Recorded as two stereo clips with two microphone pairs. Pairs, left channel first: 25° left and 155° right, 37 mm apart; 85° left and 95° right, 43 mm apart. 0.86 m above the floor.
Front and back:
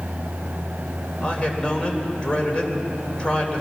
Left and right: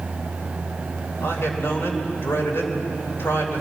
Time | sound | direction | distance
1.2 | a man speaking | 90° left | 3.5 m